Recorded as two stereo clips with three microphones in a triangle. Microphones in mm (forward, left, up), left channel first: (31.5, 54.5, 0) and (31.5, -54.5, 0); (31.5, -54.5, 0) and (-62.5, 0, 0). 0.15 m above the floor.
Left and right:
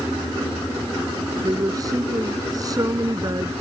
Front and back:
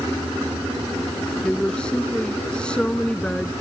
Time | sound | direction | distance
1.4 | a woman speaking | 105° right | ?